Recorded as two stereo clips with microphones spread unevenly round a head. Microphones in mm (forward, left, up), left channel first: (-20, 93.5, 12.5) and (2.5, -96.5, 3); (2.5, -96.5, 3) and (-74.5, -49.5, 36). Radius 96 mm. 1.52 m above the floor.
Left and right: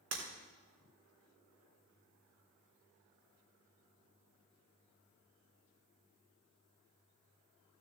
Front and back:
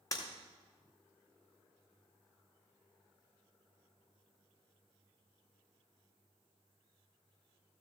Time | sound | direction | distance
0.1 | breaking glass | 95° right | 3.5 m